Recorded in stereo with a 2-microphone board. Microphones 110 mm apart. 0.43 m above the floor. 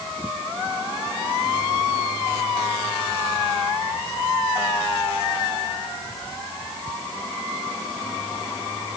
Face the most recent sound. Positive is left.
No sound to turn to.